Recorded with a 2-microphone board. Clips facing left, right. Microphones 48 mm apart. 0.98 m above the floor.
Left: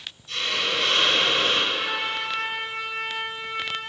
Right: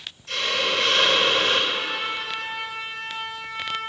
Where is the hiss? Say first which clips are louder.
Right 2 dB; 70° right (ahead or behind), 2 m.